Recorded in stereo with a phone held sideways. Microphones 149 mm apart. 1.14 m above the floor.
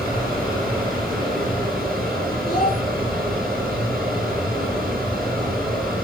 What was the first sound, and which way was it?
A fan, 80° right.